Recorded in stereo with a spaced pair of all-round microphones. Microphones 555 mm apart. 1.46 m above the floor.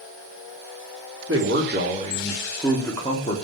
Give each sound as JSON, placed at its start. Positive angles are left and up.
{"t": 1.3, "sound": "a man speaking", "side_deg": -25, "distance_m": 3.5}